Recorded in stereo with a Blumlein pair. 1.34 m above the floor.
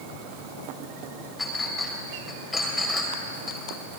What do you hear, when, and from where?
1.4 s a clink: 10° left, 4 m